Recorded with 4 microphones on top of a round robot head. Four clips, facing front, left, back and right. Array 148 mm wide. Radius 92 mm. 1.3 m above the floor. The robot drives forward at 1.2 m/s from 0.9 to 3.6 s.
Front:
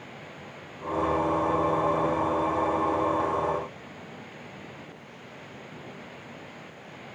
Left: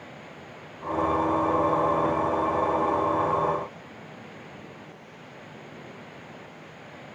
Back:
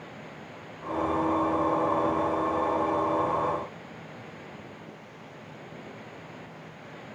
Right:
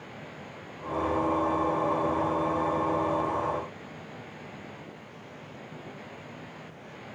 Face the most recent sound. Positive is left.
No sound to turn to.